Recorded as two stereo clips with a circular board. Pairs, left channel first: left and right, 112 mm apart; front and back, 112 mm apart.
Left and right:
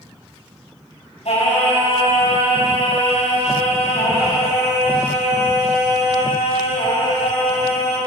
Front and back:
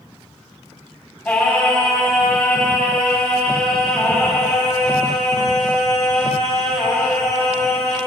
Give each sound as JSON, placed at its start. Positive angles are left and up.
{"t": 1.2, "sound": "singing", "azimuth_deg": 80, "distance_m": 5.0}